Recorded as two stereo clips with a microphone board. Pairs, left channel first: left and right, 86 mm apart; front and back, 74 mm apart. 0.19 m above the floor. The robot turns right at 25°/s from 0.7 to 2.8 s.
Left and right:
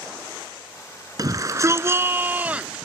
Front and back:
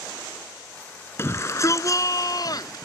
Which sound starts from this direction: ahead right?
A shout, at 1.2 s.